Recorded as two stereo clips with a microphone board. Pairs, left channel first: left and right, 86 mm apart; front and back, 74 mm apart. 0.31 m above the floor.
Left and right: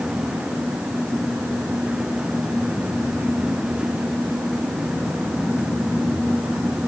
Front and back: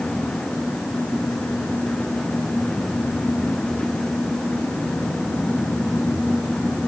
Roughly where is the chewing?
I don't hear chewing.